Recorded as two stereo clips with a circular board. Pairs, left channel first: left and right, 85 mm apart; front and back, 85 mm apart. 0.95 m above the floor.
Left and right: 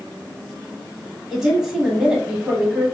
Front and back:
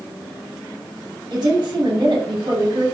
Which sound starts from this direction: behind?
A woman speaking, at 1.3 s.